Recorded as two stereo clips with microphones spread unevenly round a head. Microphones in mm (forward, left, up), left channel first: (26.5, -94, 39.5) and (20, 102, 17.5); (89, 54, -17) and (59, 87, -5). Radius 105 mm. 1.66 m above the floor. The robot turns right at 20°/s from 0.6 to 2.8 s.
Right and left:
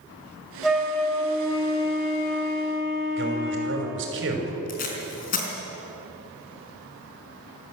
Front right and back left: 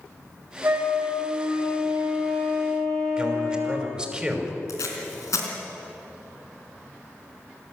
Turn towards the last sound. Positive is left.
turn(degrees=-45)